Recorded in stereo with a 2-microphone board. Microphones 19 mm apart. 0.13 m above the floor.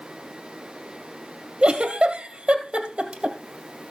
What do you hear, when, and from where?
1.6 s a giggle: 60° right (ahead or behind), 2 m